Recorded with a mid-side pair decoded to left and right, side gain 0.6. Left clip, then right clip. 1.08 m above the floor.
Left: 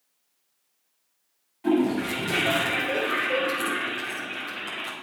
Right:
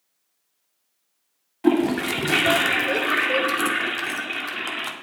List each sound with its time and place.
1.6 s a toilet flushing: 50° right, 2.0 m